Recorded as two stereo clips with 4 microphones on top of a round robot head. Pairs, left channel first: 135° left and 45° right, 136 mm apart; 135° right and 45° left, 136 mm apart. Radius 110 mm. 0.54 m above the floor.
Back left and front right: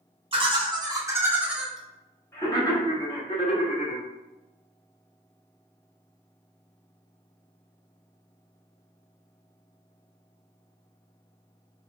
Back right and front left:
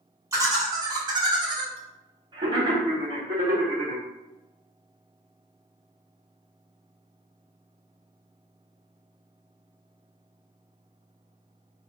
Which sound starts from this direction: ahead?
Laughter, at 0.3 s.